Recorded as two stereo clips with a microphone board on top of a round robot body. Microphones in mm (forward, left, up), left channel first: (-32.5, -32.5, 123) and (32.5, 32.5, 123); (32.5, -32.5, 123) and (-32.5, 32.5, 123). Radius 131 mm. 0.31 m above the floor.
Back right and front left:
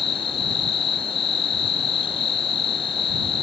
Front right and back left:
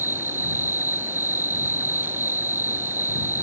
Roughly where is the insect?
Behind right.